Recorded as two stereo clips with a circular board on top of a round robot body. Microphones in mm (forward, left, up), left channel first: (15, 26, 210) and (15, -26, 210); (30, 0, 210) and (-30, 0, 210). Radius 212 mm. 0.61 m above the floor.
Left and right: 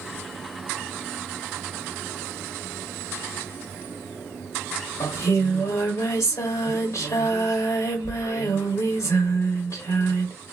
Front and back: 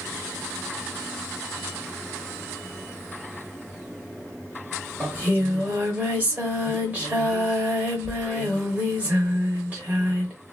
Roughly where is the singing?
Behind left.